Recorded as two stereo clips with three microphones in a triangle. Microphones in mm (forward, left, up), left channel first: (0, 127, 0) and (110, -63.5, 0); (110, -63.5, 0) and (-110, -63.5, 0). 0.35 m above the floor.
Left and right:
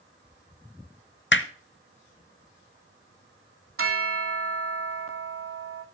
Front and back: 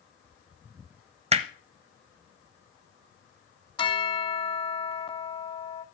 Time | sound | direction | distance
1.3 | hammering | 125° left | 0.8 m
3.8 | a bell | 70° right | 0.7 m